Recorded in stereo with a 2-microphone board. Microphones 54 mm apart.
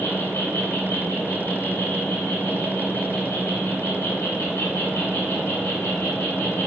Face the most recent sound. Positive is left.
turn(degrees=65)  # may be behind; listen again after turning